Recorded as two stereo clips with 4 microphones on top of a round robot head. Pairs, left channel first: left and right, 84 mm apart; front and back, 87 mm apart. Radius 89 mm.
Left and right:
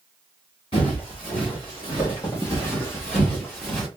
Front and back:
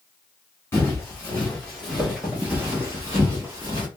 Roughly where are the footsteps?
Ahead left.